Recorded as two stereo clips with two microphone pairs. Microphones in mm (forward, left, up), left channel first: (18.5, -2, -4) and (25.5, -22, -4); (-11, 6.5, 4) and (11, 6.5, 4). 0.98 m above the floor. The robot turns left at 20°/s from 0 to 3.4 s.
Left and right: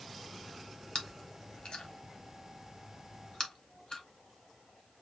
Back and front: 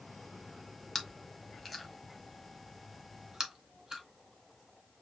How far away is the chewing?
About 1.3 m.